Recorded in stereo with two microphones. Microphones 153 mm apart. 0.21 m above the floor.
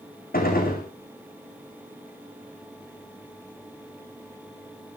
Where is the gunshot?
65° left (ahead or behind), 4 m.